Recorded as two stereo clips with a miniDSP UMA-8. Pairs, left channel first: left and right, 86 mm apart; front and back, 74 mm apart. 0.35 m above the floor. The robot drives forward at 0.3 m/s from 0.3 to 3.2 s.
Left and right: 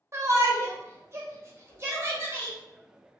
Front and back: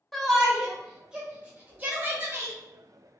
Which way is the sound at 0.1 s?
90° right.